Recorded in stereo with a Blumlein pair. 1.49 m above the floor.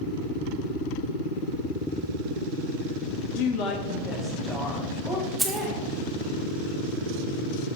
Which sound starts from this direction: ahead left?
A woman speaking, at 3.3 s.